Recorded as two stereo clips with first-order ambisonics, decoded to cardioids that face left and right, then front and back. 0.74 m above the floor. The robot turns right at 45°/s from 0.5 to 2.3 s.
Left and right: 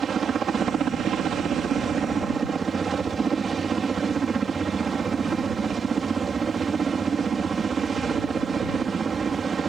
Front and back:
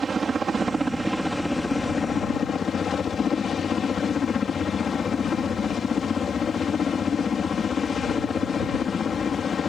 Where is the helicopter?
125° right; by 9.7 s 45° right.